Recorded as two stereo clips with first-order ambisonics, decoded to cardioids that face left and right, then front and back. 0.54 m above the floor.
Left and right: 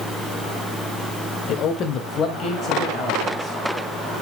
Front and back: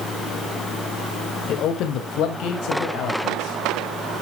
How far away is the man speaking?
About 1.7 m.